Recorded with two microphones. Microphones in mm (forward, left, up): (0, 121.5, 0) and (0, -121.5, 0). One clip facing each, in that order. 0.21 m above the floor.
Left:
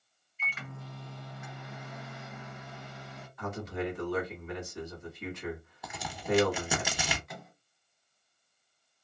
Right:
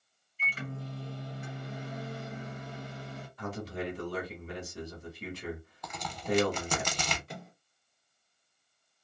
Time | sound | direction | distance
0.4 | a microwave | 35° right (ahead or behind) | 0.9 m
3.4 | a man speaking | 35° right (ahead or behind) | 1.8 m
5.8 | a crack | 10° left (ahead or behind) | 0.8 m
7.3 | a microwave | 35° right (ahead or behind) | 1.0 m